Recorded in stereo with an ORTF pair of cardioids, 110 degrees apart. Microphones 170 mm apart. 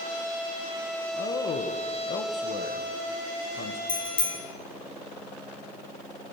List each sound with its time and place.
1.1 s a man speaking: 55° left, 1.2 m
3.9 s a bicycle bell: 30° left, 2.5 m